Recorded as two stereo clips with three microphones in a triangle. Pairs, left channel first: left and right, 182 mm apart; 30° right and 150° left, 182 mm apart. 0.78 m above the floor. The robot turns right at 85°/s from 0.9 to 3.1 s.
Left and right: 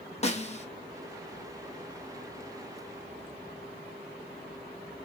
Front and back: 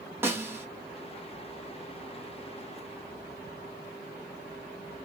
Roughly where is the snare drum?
Left.